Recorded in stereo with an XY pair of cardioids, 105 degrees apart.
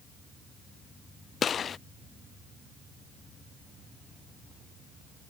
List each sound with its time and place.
1.4 s a gunshot: 45° left